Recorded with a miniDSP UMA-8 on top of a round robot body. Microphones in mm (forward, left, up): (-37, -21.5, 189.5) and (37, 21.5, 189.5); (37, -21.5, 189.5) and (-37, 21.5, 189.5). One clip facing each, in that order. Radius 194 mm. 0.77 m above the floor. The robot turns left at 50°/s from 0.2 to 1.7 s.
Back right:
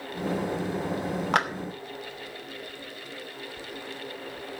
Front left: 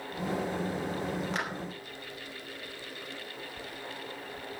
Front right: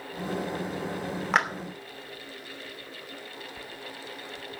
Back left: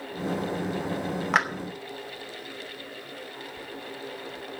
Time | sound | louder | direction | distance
1.3 | a clap | back right 14 dB, even | 120° right | 2.5 m